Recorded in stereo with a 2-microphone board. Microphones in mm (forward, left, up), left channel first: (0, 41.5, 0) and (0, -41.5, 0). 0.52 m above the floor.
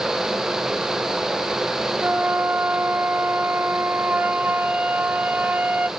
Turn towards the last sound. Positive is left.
turn(degrees=-20)  # may be behind; listen again after turning